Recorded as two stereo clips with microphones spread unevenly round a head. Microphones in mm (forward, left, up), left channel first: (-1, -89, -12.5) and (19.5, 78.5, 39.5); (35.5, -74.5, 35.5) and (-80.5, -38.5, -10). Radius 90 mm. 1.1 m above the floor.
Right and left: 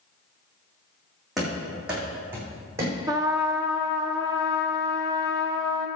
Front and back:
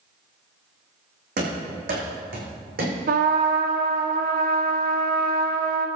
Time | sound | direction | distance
1.4 | running footsteps | 170° left | 4 m
3.1 | a trumpet | 150° left | 1.3 m